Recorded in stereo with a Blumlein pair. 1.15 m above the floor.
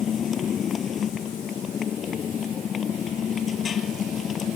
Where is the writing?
I don't hear writing.